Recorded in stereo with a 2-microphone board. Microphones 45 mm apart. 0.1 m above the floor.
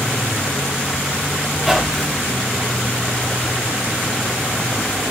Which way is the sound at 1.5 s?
5° right (ahead or behind).